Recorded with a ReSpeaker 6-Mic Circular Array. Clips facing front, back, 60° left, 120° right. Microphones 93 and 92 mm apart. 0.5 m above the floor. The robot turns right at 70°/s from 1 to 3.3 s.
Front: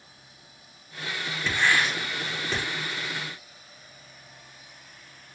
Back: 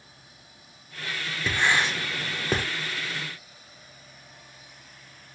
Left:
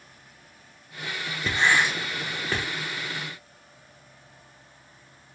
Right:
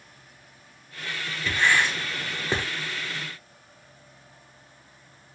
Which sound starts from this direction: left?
Writing, at 1.5 s.